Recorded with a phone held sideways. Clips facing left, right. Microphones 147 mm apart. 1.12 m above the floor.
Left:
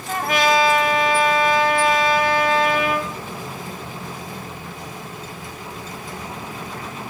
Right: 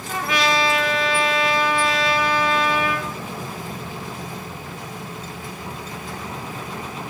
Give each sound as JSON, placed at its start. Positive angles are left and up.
{"t": 0.1, "sound": "a trumpet", "side_deg": 55, "distance_m": 1.7}